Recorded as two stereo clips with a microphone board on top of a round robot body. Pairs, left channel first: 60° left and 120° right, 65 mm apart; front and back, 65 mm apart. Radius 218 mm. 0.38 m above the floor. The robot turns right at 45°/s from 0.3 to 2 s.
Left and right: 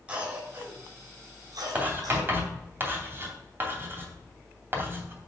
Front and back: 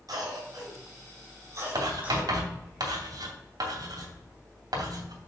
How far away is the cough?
About 5.5 m.